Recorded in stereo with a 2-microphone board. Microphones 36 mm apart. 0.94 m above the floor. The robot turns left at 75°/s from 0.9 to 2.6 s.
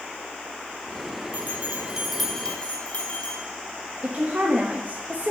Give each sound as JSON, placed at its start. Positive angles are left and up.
{"t": 1.3, "sound": "a bell", "azimuth_deg": -120, "distance_m": 3.0}
{"t": 4.0, "sound": "a woman speaking", "side_deg": -50, "distance_m": 1.3}